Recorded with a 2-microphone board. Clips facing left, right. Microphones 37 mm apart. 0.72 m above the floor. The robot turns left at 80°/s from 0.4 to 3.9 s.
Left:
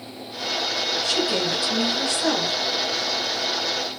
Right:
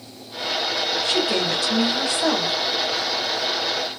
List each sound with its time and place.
1.0 s a woman speaking: 45° right, 1.5 m; by 2.5 s 165° right, 1.5 m